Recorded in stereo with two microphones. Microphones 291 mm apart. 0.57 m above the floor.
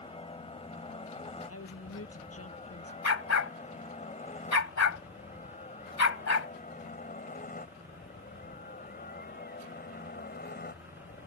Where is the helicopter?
20° left (ahead or behind); by 11.3 s 30° left (ahead or behind).